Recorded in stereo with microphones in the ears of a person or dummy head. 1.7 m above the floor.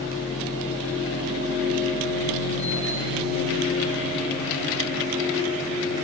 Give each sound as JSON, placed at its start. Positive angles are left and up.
{"t": 0.0, "sound": "a machine running", "side_deg": 55, "distance_m": 2.0}